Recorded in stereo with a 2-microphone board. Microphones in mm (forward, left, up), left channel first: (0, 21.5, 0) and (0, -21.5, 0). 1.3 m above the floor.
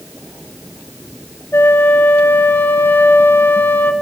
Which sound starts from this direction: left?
A flute, at 1.5 s.